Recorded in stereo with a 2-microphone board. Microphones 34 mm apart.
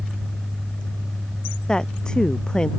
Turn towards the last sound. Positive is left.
turn(degrees=25)  # may be behind; listen again after turning